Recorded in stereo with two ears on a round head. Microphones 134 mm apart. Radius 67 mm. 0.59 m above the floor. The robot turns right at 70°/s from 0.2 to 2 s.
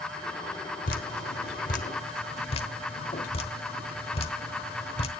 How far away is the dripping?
About 1.2 m.